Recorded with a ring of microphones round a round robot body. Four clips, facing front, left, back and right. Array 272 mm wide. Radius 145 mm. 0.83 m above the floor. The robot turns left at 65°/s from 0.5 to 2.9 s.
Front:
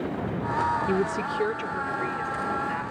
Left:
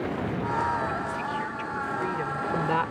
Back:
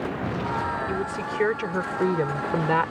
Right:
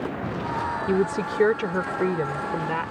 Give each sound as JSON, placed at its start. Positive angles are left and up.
{"t": 0.9, "sound": "a woman speaking", "azimuth_deg": -65}